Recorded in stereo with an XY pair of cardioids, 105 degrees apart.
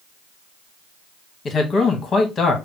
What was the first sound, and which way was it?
A man speaking, 45° left.